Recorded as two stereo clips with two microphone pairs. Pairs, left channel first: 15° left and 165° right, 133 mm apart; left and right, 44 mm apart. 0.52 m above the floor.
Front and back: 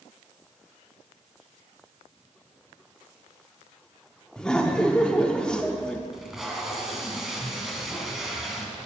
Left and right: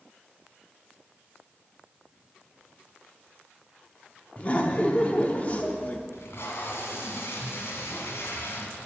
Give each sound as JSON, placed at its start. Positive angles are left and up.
{"t": 4.4, "sound": "laughter", "azimuth_deg": 90, "distance_m": 0.8}
{"t": 6.1, "sound": "tape being pulled", "azimuth_deg": 105, "distance_m": 2.0}